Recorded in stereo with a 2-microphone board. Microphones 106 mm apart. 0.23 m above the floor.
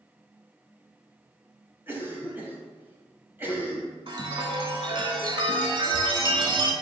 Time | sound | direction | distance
1.9 | a cough | 20° right (ahead or behind) | 1.0 m
4.1 | a chime | 50° right (ahead or behind) | 0.6 m